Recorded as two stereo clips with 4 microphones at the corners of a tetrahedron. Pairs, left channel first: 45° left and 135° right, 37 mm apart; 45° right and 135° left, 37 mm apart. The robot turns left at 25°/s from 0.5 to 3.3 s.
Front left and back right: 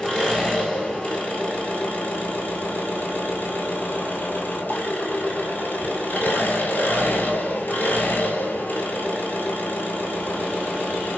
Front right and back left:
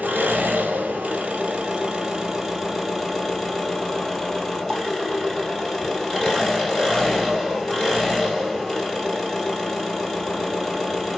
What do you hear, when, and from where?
0.0 s an engine running: 105° left, 1.3 m; by 11.2 s 35° left, 1.3 m